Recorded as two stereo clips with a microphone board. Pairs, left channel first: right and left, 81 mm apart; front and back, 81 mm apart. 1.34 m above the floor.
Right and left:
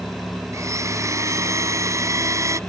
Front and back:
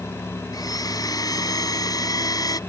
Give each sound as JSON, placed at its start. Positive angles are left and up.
{"t": 0.5, "sound": "a blender", "azimuth_deg": 35}